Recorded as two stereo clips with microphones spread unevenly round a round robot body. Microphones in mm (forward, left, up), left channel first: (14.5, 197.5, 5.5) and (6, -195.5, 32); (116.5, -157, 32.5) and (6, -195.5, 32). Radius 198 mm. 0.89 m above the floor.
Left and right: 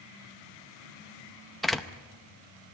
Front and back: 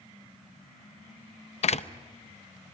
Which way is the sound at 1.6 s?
Straight ahead.